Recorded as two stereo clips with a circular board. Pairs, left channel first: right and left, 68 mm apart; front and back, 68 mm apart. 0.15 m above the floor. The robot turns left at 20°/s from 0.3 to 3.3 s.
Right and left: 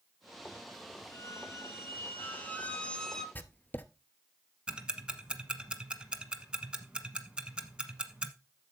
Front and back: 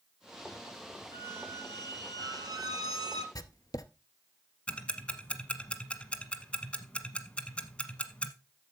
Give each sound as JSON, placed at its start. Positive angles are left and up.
{"t": 1.1, "sound": "a squeak", "azimuth_deg": -130, "distance_m": 0.8}
{"t": 3.4, "sound": "writing", "azimuth_deg": -30, "distance_m": 0.6}
{"t": 4.7, "sound": "ticking", "azimuth_deg": 40, "distance_m": 1.0}